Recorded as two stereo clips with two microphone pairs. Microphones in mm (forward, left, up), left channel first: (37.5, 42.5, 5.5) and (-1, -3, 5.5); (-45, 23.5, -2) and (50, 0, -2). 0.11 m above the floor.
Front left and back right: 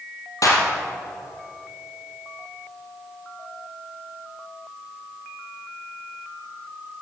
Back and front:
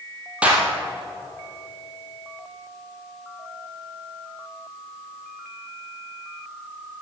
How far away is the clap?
About 2.5 m.